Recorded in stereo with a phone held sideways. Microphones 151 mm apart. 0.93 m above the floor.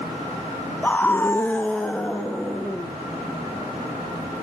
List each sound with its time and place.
0.8 s a scream: 10° left (ahead or behind), 0.9 m; by 2.9 s 5° left (ahead or behind), 2.5 m